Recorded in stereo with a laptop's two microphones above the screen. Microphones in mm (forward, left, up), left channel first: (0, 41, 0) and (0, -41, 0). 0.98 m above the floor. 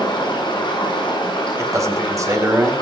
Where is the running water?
70° left (ahead or behind), 9 m.